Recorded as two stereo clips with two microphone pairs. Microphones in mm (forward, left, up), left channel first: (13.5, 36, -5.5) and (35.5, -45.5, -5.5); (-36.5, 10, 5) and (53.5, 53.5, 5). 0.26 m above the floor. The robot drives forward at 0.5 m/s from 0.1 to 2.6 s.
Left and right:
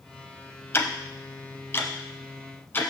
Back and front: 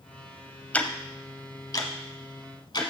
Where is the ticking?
135° left, 0.6 m; by 2.9 s 170° left, 1.3 m.